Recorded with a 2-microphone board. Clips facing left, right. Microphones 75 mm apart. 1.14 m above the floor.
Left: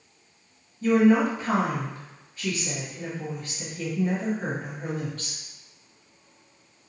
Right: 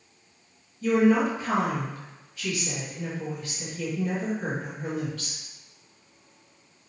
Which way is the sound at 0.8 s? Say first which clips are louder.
Left 2 dB; 40° left (ahead or behind).